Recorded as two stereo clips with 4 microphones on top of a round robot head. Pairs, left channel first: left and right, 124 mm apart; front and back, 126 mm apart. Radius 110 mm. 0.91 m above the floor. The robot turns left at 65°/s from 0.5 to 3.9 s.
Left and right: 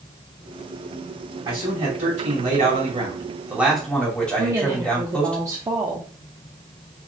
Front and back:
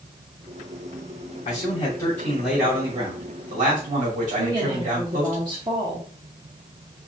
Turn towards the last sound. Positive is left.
turn(degrees=-145)